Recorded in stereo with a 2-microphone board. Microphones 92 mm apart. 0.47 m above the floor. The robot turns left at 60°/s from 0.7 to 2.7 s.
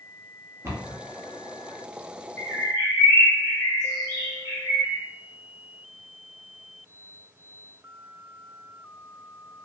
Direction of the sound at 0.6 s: 30° right (ahead or behind).